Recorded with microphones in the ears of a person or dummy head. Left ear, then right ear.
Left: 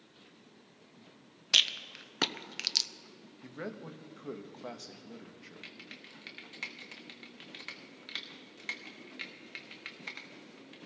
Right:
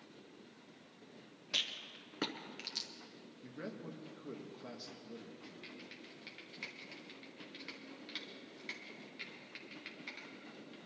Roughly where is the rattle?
Left.